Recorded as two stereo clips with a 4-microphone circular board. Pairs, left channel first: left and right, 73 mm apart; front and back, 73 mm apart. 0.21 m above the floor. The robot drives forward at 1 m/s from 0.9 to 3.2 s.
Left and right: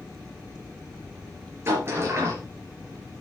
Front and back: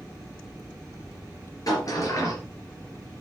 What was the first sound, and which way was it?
A sliding door, 35° right.